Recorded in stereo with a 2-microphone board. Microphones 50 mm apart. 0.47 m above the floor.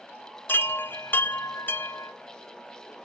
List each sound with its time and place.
0.5 s a chime: 45° left (ahead or behind), 0.8 m